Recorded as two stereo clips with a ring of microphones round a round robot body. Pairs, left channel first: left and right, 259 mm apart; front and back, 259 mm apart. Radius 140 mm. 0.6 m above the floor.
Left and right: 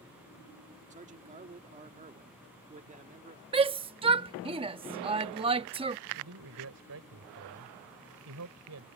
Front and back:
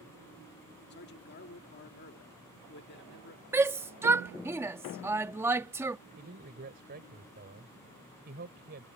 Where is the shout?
115° right.